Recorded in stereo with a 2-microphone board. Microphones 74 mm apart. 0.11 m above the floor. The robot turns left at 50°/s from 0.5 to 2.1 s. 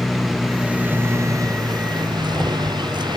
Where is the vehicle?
5° right; by 3.2 s 85° right.